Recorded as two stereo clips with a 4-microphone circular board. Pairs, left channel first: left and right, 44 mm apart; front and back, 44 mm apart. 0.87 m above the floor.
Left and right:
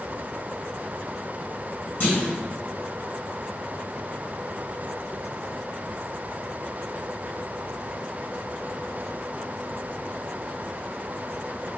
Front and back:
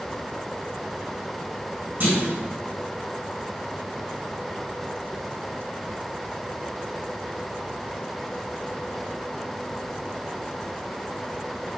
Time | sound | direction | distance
2.0 | a clunk | 135° left | 1.3 m